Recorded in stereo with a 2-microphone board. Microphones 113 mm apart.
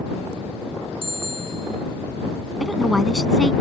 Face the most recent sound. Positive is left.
turn(degrees=-5)  # may be behind; listen again after turning